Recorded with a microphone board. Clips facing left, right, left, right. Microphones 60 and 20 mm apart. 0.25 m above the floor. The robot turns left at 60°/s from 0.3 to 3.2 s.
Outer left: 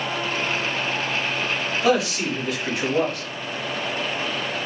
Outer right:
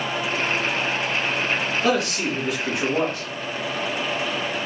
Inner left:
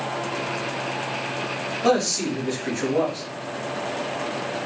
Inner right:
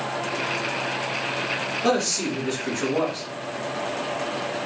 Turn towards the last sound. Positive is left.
turn(degrees=-15)  # may be behind; listen again after turning